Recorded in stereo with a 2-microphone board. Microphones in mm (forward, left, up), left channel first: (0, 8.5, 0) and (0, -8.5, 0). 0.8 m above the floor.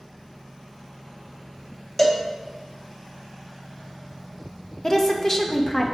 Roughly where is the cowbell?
Centre.